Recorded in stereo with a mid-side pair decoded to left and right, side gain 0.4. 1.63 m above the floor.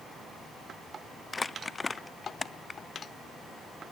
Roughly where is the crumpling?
Ahead left.